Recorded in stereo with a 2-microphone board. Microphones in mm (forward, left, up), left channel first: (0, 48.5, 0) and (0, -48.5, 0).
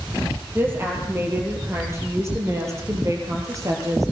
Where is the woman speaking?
20° right (ahead or behind), 7.5 m; by 4.1 s 35° right (ahead or behind), 6.5 m.